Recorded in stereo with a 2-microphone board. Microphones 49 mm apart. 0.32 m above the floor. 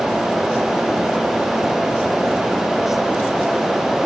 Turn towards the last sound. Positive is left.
No sound to turn to.